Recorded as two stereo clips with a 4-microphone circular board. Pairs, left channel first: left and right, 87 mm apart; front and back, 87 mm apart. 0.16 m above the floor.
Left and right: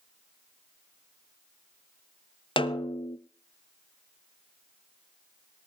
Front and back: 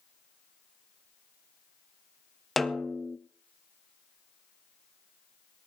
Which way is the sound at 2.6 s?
85° left.